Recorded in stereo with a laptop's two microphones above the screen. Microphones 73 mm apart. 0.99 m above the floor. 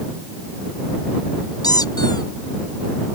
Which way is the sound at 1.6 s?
70° left (ahead or behind).